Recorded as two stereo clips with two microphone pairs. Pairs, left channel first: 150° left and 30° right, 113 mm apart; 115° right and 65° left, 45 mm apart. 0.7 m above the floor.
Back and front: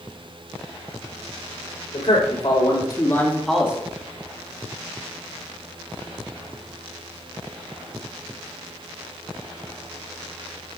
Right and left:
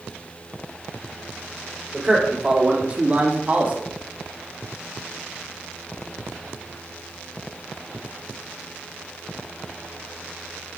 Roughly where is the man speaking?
Behind left.